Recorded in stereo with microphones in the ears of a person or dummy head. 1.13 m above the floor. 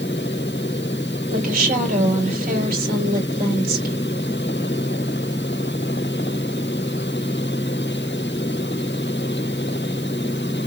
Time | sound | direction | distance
1.3 | a woman speaking | 50° right (ahead or behind) | 3 m